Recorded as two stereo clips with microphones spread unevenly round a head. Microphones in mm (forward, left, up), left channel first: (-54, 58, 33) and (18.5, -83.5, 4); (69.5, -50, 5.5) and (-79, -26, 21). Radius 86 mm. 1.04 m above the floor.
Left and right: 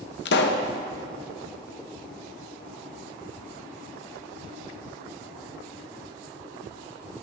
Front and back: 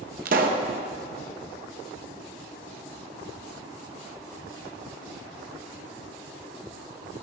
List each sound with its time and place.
0.2 s a pop: 130° left, 1.1 m